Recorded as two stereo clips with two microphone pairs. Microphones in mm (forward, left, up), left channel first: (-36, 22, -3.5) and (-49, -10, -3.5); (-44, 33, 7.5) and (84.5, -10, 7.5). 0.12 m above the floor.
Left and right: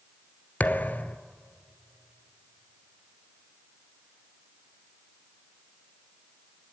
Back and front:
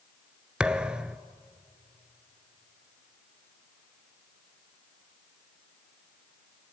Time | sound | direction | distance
0.6 | a thud | 60° left | 0.6 m